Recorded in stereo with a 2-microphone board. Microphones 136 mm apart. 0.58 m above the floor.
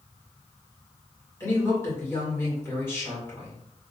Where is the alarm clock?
No alarm clock in this recording.